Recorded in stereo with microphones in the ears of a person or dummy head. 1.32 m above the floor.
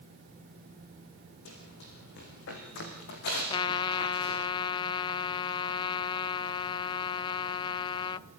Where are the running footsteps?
75° left (ahead or behind), 6 m; by 4.4 s 55° left (ahead or behind), 6.5 m.